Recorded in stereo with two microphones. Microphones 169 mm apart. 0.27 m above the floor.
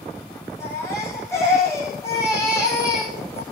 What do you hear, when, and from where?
0.6 s a baby crying: 15° left (ahead or behind), 7 m